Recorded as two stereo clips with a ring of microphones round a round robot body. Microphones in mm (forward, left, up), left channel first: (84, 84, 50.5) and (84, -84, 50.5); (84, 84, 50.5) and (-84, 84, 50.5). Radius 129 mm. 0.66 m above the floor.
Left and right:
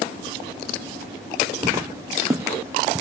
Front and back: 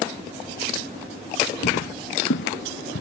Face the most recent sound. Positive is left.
turn(degrees=-15)